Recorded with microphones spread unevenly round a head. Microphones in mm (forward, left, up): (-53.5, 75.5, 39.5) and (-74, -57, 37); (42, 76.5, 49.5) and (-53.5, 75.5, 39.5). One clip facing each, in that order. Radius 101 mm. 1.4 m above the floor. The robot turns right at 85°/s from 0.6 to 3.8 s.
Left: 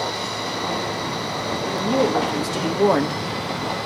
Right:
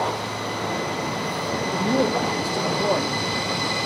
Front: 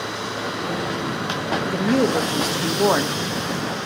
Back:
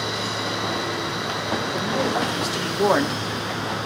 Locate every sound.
1.6 s a woman speaking: 30° right, 1.5 m; by 3.2 s 105° left, 1.5 m